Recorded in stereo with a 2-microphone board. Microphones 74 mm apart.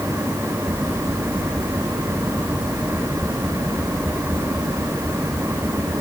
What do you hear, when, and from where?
Only background noise.